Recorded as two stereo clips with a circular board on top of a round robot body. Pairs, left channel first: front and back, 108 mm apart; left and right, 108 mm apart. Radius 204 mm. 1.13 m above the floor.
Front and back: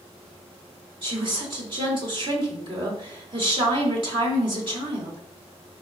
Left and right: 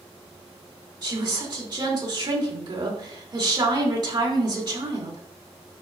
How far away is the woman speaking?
About 3 m.